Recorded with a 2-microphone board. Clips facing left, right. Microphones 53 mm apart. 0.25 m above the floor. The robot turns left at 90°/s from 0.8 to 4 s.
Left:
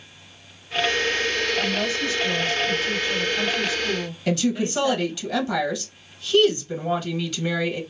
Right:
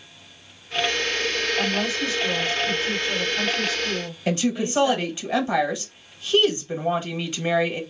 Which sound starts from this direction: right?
A woman speaking, at 4.3 s.